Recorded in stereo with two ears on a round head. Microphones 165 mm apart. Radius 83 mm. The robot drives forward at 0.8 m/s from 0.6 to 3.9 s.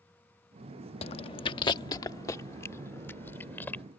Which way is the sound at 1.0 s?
30° left (ahead or behind).